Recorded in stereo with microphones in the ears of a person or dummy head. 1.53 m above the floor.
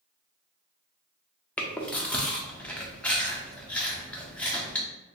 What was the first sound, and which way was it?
Chewing, 10° left (ahead or behind).